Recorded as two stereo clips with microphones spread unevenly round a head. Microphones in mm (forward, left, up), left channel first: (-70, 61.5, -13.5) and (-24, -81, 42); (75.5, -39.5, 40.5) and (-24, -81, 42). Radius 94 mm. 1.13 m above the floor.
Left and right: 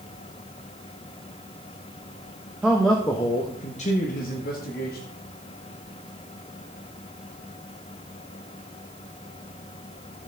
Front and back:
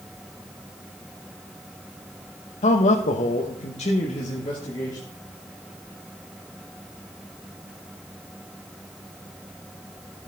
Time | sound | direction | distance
2.6 | a man speaking | 15° left | 1.2 m